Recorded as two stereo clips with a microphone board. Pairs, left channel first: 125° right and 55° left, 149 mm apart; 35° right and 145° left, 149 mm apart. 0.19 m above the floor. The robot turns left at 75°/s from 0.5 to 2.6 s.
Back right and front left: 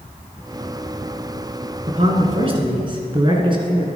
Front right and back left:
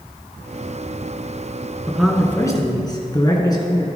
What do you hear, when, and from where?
1.9 s a man speaking: 70° left, 1.6 m; by 3.9 s 15° left, 1.6 m